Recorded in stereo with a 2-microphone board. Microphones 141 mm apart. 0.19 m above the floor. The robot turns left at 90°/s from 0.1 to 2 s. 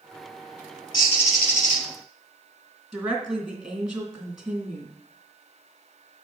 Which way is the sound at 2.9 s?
5° right (ahead or behind).